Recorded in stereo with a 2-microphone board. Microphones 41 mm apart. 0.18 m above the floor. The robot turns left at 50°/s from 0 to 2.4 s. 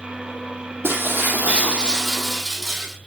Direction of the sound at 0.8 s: 110° right.